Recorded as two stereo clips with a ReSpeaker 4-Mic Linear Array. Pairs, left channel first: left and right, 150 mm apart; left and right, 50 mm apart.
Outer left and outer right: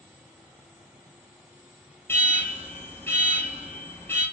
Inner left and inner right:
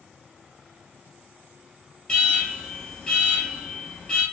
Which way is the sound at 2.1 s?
15° left (ahead or behind).